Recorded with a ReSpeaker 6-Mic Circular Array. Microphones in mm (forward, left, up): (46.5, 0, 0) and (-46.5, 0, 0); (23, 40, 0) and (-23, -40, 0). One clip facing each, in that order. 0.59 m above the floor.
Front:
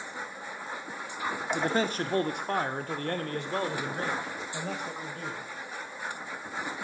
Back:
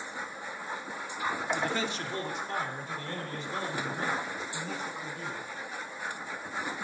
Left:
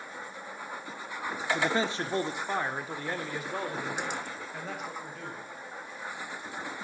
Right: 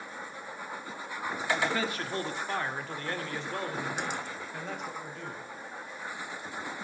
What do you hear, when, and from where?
1.5 s a man speaking: 30° left, 0.6 m; by 5.5 s 30° right, 2.5 m